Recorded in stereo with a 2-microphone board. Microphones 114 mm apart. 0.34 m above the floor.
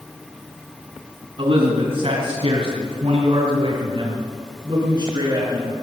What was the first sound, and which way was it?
A man speaking, 60° right (ahead or behind).